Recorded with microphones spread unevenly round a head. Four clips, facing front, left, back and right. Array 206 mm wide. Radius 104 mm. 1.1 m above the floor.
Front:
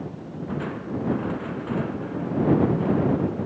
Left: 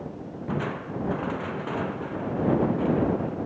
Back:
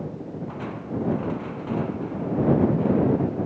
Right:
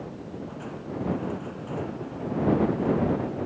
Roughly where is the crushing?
Ahead left.